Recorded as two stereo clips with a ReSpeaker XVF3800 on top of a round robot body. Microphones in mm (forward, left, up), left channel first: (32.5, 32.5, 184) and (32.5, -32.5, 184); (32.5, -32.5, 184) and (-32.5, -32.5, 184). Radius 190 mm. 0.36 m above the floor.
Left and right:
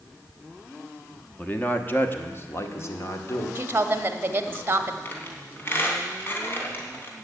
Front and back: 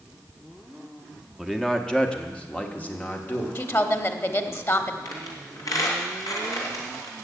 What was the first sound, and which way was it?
A man speaking, 85° left.